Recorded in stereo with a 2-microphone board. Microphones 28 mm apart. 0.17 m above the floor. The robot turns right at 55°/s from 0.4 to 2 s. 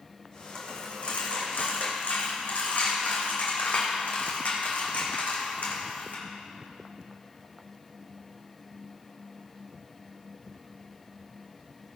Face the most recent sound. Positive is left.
turn(degrees=70)  # may be behind; listen again after turning